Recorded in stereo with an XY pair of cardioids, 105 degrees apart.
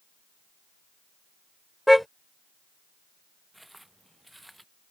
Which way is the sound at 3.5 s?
5° right.